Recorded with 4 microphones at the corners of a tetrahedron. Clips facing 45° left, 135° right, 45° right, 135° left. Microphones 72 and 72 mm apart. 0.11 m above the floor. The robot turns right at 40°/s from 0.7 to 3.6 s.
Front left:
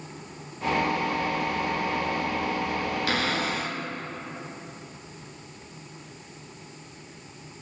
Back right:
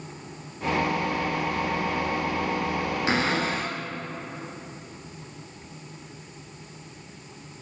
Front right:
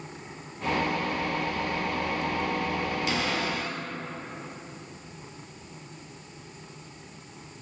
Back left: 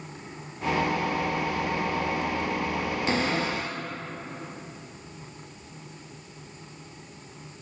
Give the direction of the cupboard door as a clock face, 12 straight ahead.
6 o'clock.